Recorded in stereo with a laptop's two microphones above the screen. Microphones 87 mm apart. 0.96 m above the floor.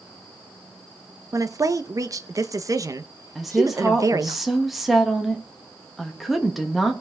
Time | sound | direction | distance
1.3 | a woman speaking | 40° right (ahead or behind) | 1.1 m
3.4 | a woman speaking | centre (ahead or behind) | 1.3 m